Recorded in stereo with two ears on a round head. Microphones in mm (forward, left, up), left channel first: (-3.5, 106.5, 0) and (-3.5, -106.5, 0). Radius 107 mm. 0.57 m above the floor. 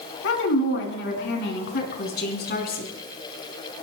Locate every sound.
0.2 s a woman speaking: 55° left (ahead or behind), 6.5 m; by 2.8 s 40° left (ahead or behind), 7 m